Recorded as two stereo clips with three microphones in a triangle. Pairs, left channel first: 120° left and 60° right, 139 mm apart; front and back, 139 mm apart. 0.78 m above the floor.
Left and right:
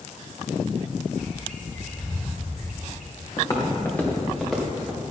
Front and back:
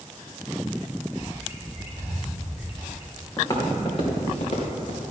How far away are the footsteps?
About 2.5 m.